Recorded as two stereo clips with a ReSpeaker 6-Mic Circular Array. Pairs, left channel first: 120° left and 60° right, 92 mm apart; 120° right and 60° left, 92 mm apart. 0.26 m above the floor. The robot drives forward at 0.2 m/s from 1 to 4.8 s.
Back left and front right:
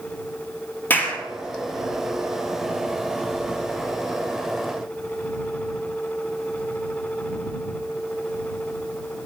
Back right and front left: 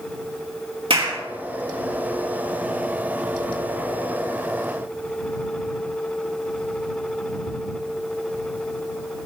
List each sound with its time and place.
0.9 s a clap: 55° left, 4.5 m